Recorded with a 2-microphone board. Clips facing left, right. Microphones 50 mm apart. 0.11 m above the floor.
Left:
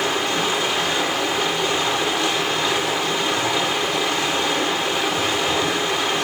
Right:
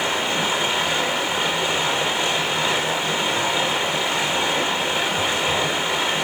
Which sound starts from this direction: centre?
Running water, at 0.0 s.